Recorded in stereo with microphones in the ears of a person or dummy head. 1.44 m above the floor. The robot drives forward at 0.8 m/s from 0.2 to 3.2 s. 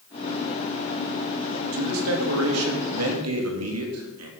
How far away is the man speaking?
About 3.5 m.